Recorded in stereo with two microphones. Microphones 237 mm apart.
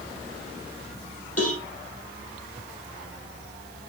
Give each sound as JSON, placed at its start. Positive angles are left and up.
{"t": 1.4, "sound": "a cowbell", "side_deg": 80, "distance_m": 3.5}